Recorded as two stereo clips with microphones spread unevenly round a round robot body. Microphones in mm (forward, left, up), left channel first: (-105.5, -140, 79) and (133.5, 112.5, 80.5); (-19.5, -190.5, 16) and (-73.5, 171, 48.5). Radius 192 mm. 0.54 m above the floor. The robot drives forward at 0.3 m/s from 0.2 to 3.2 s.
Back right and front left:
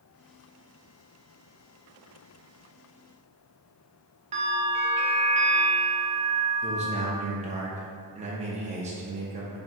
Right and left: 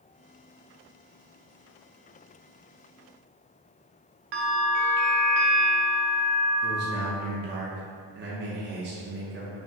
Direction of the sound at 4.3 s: 120° left.